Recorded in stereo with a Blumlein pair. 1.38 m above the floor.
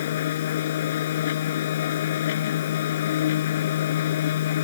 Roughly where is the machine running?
Ahead left.